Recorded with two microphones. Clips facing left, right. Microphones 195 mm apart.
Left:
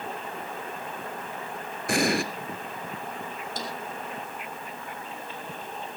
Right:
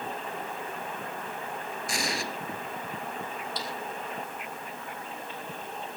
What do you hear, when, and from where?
1.9 s an explosion: 60° left (ahead or behind), 1.7 m
3.6 s a snare drum: 45° left (ahead or behind), 5 m